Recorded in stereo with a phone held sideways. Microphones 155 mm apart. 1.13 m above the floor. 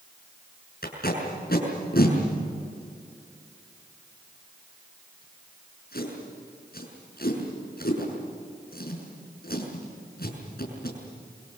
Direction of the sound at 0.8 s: 70° left (ahead or behind).